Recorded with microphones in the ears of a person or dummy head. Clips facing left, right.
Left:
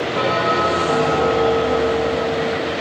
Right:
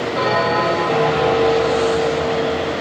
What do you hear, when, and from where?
0.1 s a bell: 15° left (ahead or behind), 0.6 m